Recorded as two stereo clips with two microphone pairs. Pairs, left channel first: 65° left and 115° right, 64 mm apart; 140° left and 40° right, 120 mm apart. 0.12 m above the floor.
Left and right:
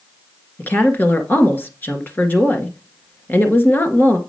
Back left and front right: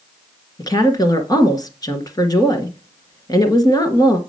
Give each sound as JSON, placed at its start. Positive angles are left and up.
{"t": 0.6, "sound": "a woman speaking", "azimuth_deg": 100, "distance_m": 1.7}